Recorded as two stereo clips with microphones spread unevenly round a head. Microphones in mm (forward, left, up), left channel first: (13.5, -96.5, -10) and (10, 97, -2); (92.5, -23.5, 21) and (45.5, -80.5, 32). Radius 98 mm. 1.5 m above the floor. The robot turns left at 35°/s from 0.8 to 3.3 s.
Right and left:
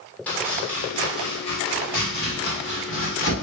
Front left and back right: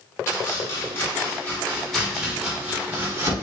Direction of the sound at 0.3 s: 5° right.